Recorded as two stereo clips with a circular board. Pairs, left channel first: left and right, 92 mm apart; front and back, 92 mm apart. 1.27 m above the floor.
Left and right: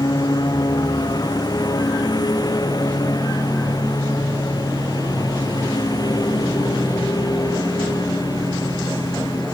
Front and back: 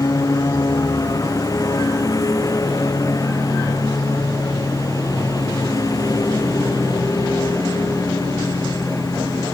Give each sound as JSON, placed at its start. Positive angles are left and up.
{"t": 0.0, "sound": "a lawn mower", "azimuth_deg": 50}